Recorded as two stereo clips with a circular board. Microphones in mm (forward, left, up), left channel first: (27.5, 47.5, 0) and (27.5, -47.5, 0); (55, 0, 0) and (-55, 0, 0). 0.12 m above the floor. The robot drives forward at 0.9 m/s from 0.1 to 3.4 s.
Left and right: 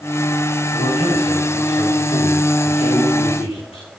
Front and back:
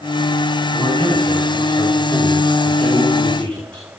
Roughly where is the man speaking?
Ahead left.